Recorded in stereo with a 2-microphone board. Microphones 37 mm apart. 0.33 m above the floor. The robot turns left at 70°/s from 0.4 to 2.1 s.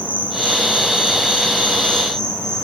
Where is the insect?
135° left, 3.5 m; by 2.6 s 15° left, 3.5 m.